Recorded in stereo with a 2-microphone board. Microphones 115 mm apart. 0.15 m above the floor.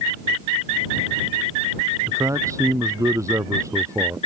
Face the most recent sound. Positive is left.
turn(degrees=-25)  # may be behind; listen again after turning